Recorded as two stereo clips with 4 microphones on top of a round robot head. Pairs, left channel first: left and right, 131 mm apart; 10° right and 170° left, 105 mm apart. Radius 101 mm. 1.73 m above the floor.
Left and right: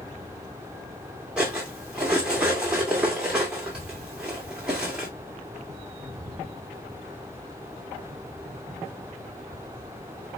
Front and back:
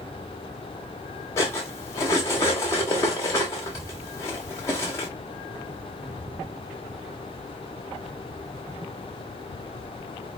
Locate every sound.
1.4 s cutlery clinking: 15° right, 0.8 m